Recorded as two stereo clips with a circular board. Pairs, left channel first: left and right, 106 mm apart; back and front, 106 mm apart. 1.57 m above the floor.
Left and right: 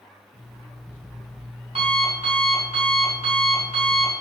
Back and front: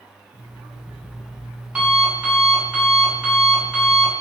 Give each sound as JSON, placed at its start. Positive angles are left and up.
{"t": 0.3, "sound": "an alarm clock", "azimuth_deg": -80, "distance_m": 3.5}